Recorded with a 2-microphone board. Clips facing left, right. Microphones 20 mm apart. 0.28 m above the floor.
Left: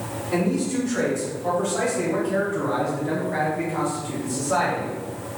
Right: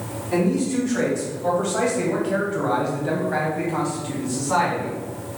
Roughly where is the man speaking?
Centre.